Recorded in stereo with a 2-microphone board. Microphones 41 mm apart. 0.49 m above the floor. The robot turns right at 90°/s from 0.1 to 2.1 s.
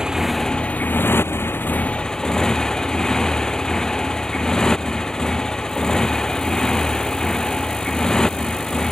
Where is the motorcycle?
15° right; by 8.9 s 165° left.